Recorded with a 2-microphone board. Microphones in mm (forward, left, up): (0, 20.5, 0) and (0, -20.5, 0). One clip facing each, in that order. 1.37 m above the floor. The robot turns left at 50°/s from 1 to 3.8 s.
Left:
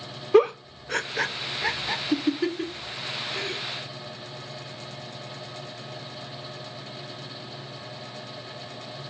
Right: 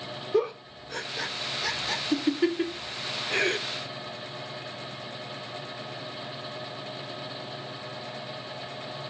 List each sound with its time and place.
0.3 s a giggle: 60° left (ahead or behind), 0.5 m; by 3.6 s 65° right (ahead or behind), 0.5 m